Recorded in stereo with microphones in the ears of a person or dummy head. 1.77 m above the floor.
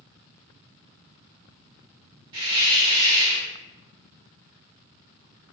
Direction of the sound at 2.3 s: 30° right (ahead or behind).